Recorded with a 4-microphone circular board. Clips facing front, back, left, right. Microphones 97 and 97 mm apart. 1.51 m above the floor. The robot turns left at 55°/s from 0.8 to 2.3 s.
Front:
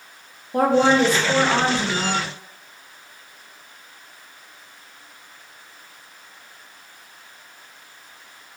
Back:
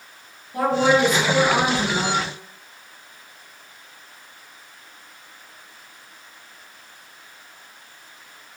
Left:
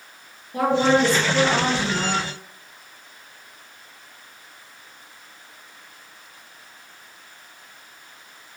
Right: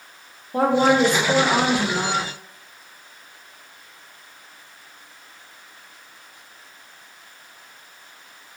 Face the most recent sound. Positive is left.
turn(degrees=-120)